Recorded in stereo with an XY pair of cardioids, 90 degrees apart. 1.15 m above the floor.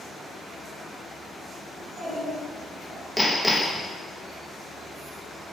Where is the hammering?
5° left, 1.0 m.